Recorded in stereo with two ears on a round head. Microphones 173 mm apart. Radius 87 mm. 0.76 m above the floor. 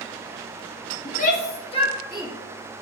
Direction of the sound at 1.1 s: 45° left (ahead or behind).